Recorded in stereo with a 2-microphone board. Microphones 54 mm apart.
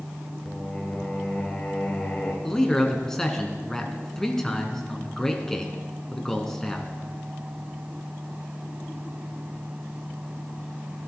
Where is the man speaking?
10° left (ahead or behind), 1.6 m.